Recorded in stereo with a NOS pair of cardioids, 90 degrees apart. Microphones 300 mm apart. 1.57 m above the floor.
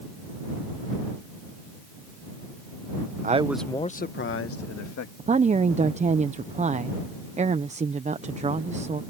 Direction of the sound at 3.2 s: 25° right.